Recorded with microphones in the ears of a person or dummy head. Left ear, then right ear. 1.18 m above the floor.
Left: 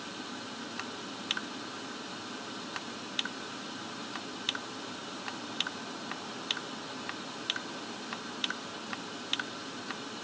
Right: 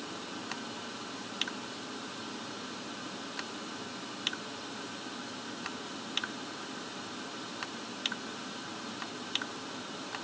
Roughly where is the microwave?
I don't hear a microwave.